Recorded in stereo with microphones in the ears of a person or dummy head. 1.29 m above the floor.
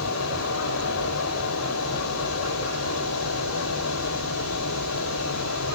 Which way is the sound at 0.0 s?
75° left (ahead or behind).